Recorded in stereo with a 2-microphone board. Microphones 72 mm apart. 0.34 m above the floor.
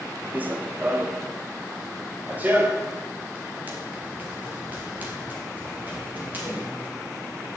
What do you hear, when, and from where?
0.3 s running footsteps: 25° right (ahead or behind), 0.9 m